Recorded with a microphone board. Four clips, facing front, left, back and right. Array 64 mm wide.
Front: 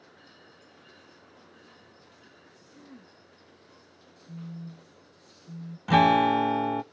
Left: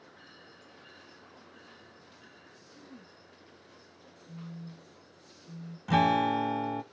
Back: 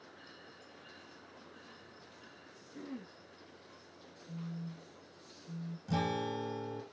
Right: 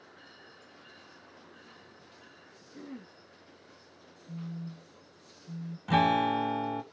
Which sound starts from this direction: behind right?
Throat clearing, at 2.7 s.